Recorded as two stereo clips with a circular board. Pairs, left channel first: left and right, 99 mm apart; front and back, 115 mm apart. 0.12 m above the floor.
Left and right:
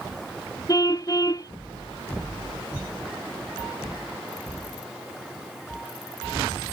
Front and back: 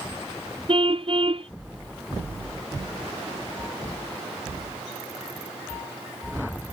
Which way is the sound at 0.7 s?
140° left.